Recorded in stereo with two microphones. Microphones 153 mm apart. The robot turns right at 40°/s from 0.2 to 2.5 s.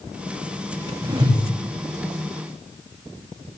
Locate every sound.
1.0 s a whoosh: 20° right (ahead or behind), 7 m; by 1.4 s 35° right (ahead or behind), 7 m